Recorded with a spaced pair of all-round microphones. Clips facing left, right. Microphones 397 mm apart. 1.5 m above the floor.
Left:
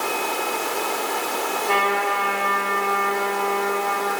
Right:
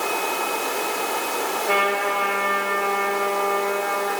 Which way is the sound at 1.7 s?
5° left (ahead or behind).